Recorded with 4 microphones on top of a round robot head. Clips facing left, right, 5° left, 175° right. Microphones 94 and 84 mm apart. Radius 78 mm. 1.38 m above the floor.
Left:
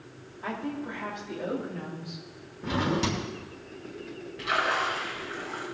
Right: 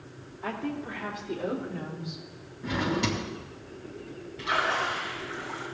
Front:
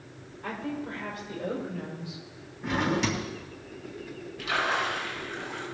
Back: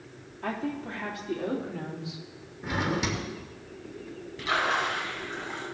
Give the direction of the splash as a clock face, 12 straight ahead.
5 o'clock.